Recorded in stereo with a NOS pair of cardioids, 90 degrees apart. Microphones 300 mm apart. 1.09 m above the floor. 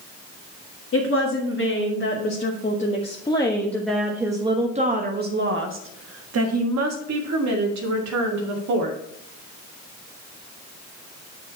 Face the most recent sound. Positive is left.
turn(degrees=-75)